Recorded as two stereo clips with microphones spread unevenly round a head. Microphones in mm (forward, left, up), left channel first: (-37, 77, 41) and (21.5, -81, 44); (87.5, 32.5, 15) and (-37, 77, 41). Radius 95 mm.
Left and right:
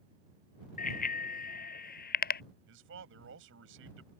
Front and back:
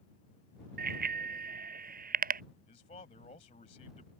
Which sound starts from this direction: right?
A man speaking, at 2.7 s.